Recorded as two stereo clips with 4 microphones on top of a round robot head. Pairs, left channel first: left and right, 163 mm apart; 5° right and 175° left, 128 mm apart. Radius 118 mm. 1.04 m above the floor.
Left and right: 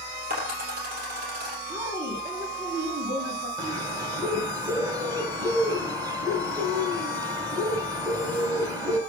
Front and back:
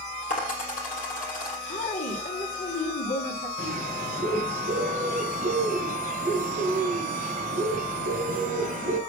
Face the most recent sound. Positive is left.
turn(degrees=-160)